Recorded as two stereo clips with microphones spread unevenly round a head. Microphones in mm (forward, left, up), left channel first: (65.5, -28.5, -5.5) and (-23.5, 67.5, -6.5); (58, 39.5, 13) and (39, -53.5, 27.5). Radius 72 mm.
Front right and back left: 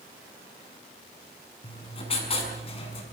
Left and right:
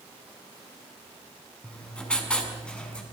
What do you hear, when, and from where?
1.6 s writing: straight ahead, 6.5 m